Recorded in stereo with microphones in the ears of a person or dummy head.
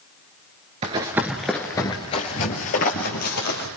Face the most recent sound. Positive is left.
turn(degrees=55)  # may be behind; listen again after turning